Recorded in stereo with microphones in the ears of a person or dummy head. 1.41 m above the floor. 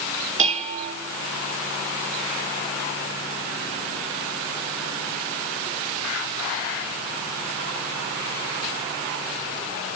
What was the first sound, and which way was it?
Dishes clattering, 45° right (ahead or behind).